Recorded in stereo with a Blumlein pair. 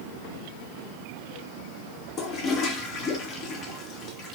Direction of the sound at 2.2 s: 30° left.